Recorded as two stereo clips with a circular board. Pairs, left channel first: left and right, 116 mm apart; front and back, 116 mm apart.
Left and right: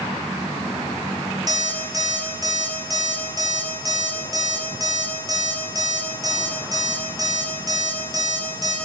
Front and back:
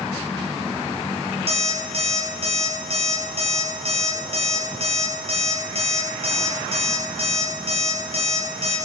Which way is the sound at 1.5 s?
145° right.